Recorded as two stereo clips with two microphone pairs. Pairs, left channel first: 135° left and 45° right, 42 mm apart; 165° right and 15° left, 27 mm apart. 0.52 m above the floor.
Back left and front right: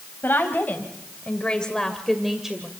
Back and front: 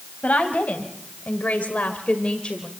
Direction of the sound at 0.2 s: 170° left.